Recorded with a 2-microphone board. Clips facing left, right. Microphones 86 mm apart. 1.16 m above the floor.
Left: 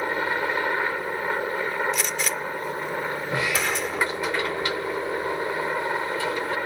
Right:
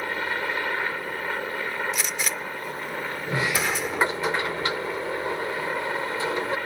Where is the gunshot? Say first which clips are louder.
Left 2 dB; 5° right (ahead or behind).